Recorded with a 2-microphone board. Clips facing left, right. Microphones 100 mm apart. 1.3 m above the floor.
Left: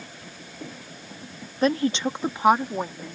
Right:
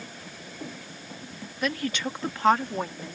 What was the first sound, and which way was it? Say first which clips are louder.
A woman speaking: left 7 dB; 35° left (ahead or behind).